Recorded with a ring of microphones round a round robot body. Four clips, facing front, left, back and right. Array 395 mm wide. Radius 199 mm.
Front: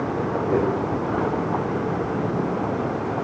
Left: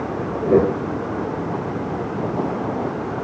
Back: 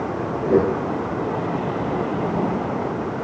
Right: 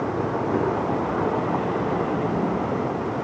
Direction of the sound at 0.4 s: 105° left.